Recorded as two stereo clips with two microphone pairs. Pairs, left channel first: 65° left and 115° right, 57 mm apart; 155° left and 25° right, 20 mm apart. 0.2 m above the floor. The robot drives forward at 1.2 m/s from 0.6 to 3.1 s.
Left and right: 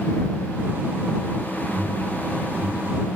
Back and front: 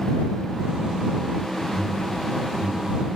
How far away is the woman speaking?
No woman speaking in this recording.